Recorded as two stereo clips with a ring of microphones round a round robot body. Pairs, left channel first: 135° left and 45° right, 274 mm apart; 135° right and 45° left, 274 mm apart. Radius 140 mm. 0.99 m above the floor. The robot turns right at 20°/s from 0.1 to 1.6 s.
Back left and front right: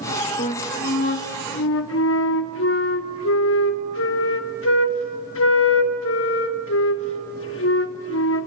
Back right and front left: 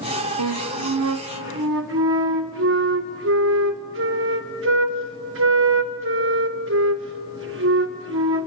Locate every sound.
0.4 s a flute: 65° left, 0.8 m; by 8.5 s 90° left, 0.8 m